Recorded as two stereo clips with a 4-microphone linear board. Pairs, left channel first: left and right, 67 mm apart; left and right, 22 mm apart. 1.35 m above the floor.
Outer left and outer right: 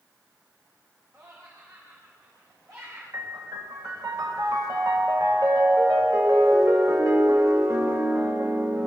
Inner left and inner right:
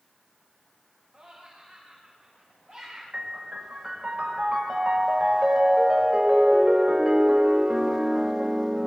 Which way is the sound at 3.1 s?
55° right (ahead or behind).